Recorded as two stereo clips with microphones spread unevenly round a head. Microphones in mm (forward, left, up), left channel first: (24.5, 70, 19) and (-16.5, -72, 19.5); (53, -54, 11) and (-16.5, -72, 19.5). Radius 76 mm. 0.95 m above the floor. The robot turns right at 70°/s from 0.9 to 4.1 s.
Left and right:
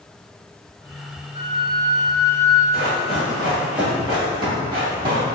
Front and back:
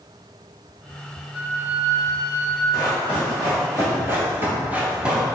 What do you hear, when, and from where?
1.3 s a flute: 125° right, 0.5 m; by 2.6 s 35° right, 0.5 m
2.7 s running footsteps: 85° left, 1.7 m; by 5.2 s 110° right, 1.0 m